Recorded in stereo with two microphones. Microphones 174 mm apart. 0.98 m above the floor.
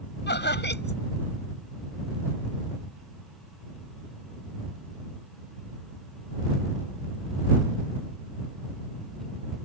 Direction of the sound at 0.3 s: 90° left.